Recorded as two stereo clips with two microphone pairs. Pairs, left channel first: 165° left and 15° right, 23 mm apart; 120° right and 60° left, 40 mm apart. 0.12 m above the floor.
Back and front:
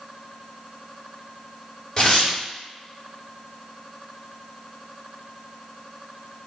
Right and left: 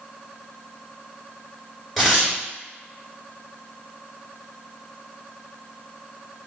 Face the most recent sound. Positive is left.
turn(degrees=150)